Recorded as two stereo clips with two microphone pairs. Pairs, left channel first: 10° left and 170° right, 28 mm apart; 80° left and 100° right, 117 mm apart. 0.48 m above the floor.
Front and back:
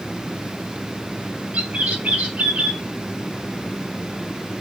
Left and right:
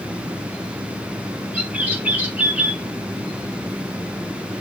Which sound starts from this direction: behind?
A bird, at 1.5 s.